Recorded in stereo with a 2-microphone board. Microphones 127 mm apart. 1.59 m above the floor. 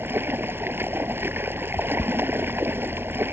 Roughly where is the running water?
Centre.